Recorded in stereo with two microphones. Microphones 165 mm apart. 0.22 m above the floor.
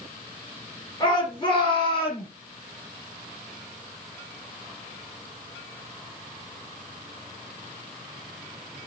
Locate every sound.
1.0 s a shout: 30° left (ahead or behind), 4 m; by 2.3 s 35° left (ahead or behind), 5 m